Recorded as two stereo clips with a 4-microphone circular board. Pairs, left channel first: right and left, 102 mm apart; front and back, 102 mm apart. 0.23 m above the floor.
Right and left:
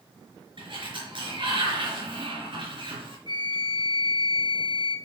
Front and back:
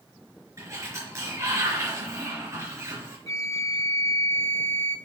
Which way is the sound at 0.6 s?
120° left.